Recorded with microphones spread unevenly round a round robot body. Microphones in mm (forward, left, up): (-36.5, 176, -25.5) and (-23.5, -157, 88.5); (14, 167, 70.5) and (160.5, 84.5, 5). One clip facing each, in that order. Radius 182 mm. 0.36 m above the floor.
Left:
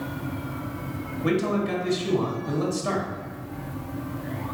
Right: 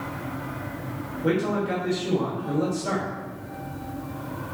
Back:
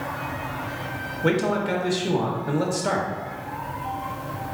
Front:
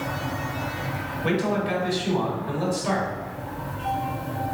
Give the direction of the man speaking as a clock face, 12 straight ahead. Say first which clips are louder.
Even, back 2 dB; 8 o'clock.